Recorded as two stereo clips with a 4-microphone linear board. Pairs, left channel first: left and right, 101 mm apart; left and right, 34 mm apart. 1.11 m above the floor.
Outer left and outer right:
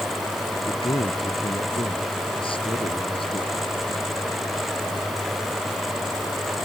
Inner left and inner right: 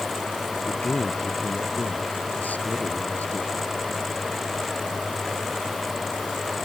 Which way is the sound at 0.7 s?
60° left (ahead or behind).